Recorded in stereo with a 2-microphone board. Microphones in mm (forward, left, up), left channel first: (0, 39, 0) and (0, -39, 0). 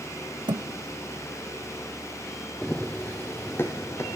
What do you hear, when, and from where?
0.5 s a thud: 75° right (ahead or behind), 0.5 m
2.6 s running footsteps: 10° left (ahead or behind), 1.1 m; by 4.2 s 35° left (ahead or behind), 1.6 m